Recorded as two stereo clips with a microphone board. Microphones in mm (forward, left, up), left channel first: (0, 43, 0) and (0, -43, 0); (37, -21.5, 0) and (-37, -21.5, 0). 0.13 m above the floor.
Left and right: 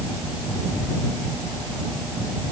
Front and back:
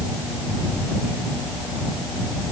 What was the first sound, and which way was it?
Only background noise.